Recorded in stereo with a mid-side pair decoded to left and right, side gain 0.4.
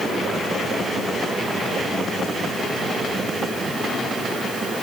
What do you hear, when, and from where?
Only background noise.